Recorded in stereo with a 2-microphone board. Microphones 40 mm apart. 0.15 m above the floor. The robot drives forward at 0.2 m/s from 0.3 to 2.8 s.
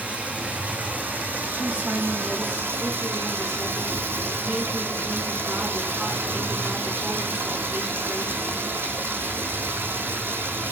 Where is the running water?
45° right (ahead or behind), 0.8 m; by 10.7 s 85° right, 0.5 m.